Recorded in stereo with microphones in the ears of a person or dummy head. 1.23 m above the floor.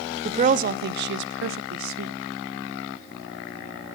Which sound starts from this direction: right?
A woman speaking, at 0.2 s.